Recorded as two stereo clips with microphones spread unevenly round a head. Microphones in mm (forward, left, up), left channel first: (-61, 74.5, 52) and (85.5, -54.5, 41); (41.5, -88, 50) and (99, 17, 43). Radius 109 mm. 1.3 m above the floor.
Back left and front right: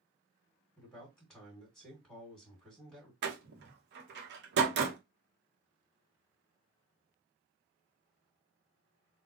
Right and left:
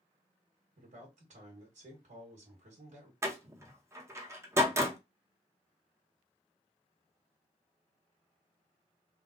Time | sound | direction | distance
0.8 | a man speaking | 50° left | 1.8 m
3.2 | a door slam | 5° right | 1.0 m